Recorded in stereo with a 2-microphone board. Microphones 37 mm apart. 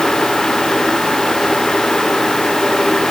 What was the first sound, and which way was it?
Only background noise.